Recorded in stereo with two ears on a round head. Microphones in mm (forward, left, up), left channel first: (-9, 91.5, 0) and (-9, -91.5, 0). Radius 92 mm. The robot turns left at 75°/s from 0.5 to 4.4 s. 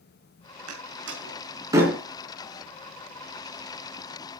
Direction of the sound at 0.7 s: 80° right.